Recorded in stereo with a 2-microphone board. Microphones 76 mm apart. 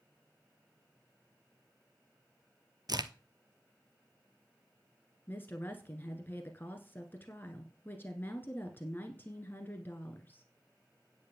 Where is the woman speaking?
25° left (ahead or behind), 1.4 m.